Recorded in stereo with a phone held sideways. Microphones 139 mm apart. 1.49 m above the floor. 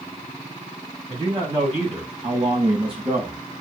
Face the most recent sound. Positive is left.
turn(degrees=-45)  # may be behind; listen again after turning